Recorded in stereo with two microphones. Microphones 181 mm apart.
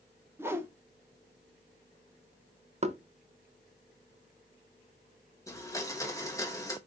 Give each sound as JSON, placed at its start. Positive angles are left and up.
{"t": 0.4, "sound": "a whoosh", "side_deg": -15, "distance_m": 0.6}
{"t": 2.8, "sound": "knocking", "side_deg": -35, "distance_m": 0.6}
{"t": 5.5, "sound": "a blender", "side_deg": 15, "distance_m": 1.0}